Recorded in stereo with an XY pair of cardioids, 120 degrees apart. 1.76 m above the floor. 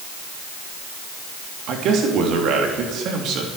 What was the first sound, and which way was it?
A man speaking, 70° right.